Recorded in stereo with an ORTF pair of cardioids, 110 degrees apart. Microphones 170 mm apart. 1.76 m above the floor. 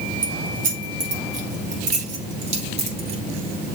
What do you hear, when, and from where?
0.2 s keys jangling: 55° right, 2.5 m; by 3.2 s 40° right, 4 m